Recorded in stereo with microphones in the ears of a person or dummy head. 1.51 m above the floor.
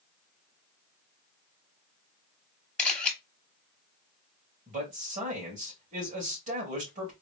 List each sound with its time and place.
2.8 s a camera shutter: 5° left (ahead or behind), 1.0 m
4.7 s a man speaking: 50° right (ahead or behind), 2 m